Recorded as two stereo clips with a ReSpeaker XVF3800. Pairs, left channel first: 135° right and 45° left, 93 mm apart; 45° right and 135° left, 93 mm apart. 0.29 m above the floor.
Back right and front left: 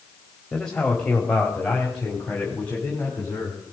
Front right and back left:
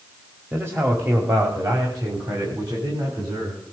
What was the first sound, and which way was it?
A man speaking, 155° left.